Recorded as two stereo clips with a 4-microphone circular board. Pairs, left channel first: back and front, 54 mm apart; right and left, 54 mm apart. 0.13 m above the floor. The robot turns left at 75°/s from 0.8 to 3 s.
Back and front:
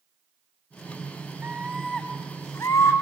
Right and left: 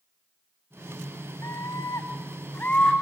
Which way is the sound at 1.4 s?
55° right.